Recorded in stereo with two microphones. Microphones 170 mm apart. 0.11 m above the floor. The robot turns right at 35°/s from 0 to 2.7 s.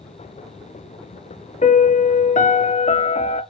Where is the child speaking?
No child speaking in this recording.